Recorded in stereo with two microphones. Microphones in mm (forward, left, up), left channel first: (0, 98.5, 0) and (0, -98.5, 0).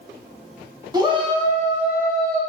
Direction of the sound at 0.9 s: 20° right (ahead or behind).